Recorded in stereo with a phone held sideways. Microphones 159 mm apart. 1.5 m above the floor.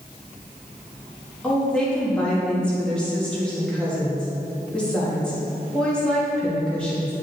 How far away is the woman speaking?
About 1.9 m.